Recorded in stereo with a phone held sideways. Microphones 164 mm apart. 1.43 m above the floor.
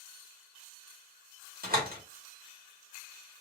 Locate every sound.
1.6 s a door slam: 65° right (ahead or behind), 1.5 m